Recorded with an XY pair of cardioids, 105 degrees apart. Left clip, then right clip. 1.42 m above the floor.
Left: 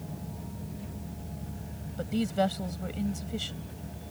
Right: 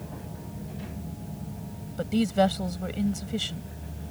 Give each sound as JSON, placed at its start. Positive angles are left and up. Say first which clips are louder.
{"t": 2.0, "sound": "a woman speaking", "louder": "right 5 dB", "azimuth_deg": -25}